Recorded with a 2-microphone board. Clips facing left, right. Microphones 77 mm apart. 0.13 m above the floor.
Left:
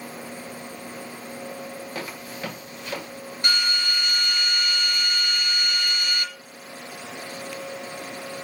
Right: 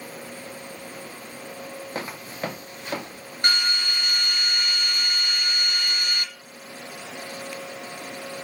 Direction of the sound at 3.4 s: 45° right (ahead or behind).